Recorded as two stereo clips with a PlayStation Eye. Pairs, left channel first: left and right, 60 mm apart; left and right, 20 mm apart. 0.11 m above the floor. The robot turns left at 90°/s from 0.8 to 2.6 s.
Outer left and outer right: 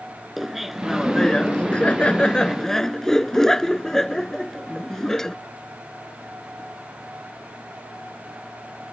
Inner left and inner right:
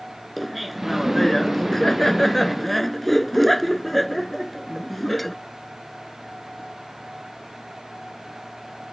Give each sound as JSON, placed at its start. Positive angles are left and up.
{"t": 0.4, "sound": "laughter", "side_deg": 0}